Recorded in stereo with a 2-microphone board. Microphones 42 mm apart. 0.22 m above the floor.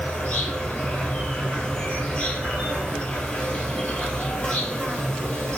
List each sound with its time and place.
0.0 s an insect: 25° left (ahead or behind), 1.8 m